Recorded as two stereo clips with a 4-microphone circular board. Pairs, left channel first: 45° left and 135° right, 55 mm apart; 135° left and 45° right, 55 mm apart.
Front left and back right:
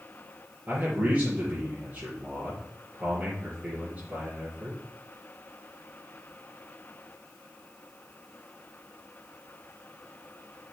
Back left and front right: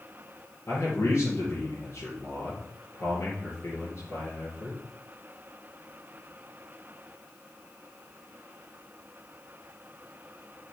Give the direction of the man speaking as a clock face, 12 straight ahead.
7 o'clock.